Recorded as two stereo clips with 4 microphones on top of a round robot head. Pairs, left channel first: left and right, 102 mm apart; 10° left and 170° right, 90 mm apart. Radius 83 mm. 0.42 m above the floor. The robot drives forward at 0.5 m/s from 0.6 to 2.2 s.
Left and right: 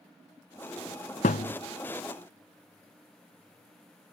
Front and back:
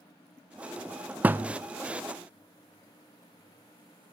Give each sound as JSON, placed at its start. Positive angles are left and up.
{"t": 1.2, "sound": "a thud", "azimuth_deg": 115, "distance_m": 0.7}